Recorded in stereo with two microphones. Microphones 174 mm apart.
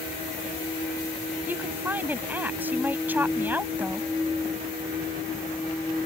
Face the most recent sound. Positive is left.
turn(degrees=-10)  # may be behind; listen again after turning